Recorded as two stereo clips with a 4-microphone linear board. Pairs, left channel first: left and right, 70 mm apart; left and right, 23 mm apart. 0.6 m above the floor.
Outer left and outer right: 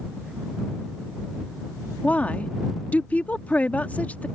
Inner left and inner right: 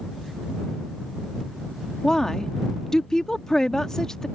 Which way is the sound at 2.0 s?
20° left (ahead or behind).